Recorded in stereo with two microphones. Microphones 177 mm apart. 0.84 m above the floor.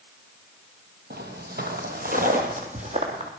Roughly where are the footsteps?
Right.